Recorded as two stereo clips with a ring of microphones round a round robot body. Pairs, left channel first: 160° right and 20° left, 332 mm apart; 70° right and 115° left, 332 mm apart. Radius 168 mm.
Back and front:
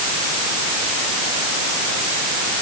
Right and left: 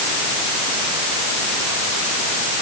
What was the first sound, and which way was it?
Only background noise.